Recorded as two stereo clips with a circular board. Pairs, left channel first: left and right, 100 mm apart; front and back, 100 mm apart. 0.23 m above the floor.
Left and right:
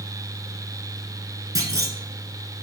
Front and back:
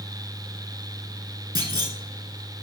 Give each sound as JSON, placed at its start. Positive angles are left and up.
{"t": 1.6, "sound": "a clunk", "azimuth_deg": -140, "distance_m": 1.1}